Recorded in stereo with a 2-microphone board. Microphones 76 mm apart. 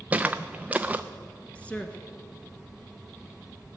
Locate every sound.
0.1 s footsteps: 20° right (ahead or behind), 0.7 m
1.6 s a woman speaking: 15° left (ahead or behind), 1.2 m